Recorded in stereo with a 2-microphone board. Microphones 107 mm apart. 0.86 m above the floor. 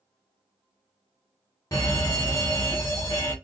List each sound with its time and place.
1.7 s a fire alarm: 30° left (ahead or behind), 1.5 m